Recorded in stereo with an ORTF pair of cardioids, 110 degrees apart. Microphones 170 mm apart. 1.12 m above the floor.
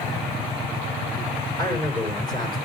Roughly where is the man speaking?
Ahead left.